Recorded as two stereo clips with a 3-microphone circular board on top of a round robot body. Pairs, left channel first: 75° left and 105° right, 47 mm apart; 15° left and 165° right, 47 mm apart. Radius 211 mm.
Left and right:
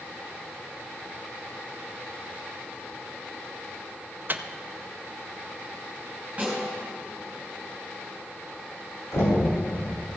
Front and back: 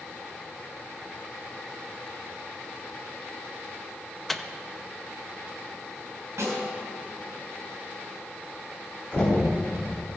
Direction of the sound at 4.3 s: 70° right.